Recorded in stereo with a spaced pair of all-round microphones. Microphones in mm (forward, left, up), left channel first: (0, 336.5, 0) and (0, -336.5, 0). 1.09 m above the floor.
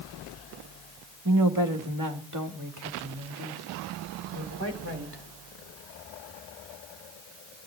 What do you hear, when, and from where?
1.2 s a woman speaking: 30° right (ahead or behind), 2 m; by 5.2 s 20° right (ahead or behind), 4 m